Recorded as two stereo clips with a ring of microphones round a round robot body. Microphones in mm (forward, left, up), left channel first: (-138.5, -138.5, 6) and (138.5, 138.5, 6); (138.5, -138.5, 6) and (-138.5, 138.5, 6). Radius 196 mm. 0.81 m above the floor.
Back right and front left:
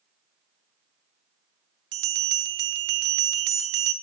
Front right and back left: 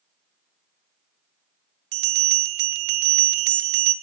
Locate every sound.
1.9 s a bell: 100° left, 0.5 m